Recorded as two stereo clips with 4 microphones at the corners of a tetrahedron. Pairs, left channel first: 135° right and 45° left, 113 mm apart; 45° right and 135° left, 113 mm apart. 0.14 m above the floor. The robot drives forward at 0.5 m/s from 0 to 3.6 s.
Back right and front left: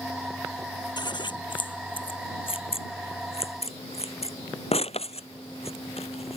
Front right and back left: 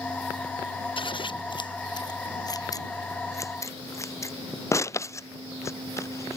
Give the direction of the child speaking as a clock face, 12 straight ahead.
No child speaking in this recording.